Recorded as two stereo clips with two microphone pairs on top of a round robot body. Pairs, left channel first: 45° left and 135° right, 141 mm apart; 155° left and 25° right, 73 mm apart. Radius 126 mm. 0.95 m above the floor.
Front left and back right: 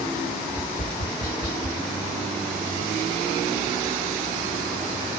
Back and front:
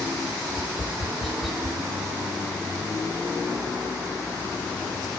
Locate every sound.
0.5 s tapping: 60° left, 6.5 m